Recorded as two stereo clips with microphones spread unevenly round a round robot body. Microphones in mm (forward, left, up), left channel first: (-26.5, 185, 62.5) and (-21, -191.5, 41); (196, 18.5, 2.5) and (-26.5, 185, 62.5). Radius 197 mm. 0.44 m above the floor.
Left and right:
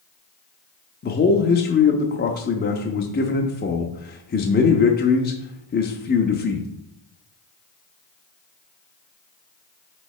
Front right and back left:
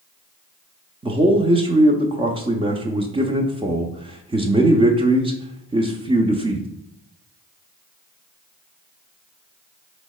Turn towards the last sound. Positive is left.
turn(degrees=65)